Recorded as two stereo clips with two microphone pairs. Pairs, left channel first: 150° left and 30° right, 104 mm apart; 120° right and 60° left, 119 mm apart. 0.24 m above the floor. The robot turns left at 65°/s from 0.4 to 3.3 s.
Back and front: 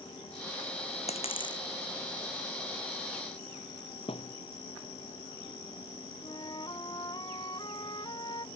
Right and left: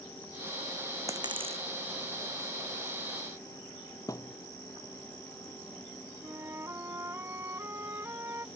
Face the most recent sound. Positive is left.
turn(degrees=120)